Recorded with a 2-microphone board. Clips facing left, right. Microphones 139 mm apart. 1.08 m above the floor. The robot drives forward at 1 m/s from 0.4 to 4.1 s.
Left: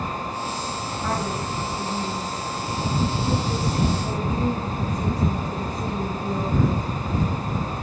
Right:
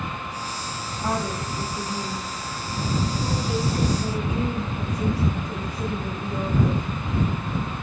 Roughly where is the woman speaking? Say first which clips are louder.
Right 1 dB; right.